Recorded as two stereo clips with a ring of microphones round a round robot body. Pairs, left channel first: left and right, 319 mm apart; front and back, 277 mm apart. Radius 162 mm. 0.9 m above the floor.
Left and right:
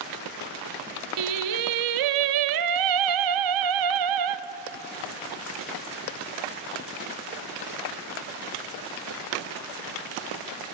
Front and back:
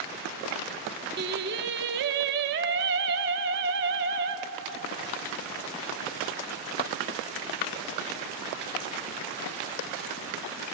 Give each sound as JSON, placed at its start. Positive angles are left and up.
{"t": 1.2, "sound": "singing", "azimuth_deg": -120, "distance_m": 0.8}